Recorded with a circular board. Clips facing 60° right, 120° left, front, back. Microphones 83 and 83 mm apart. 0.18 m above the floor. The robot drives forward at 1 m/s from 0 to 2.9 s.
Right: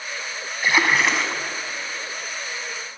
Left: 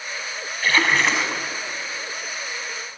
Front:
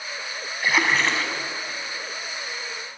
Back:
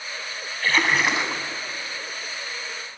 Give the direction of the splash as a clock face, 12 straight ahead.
1 o'clock.